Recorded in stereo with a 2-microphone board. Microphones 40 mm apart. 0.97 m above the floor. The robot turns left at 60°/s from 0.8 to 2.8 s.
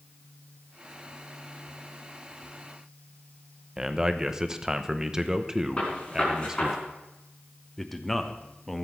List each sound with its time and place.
3.8 s a man speaking: 20° right (ahead or behind), 0.8 m
5.8 s a gunshot: 30° left (ahead or behind), 4.5 m
7.8 s a man speaking: 5° left (ahead or behind), 1.0 m